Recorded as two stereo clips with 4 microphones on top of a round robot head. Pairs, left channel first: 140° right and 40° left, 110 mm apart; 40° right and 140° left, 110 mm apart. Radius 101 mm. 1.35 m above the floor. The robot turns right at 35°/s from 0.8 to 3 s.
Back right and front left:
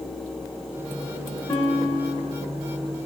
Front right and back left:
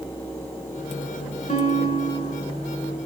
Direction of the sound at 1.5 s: 70° right.